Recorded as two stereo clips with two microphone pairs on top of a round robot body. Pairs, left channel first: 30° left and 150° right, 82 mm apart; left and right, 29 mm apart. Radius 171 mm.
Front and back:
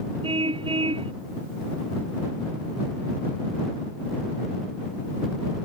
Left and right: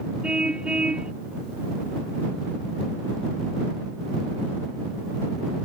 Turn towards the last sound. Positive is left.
turn(degrees=-150)